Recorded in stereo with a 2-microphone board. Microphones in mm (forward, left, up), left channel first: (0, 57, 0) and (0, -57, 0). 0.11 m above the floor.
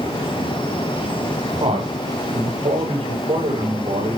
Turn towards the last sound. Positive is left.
turn(degrees=-80)